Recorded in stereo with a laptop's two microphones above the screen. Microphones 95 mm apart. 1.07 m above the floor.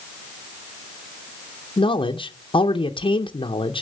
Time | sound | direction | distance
1.8 | a man speaking | 65° left (ahead or behind) | 0.6 m